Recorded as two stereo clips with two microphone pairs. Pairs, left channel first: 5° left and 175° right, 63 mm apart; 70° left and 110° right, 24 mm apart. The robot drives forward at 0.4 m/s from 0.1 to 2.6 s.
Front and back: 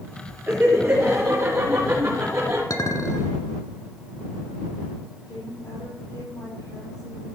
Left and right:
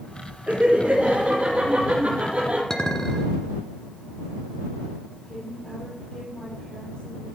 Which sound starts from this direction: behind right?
Laughter, at 0.5 s.